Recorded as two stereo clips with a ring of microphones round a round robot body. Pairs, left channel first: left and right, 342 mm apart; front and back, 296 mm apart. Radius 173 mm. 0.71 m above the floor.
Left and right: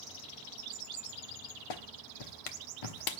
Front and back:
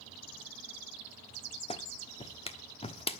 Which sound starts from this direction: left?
A clap, at 1.7 s.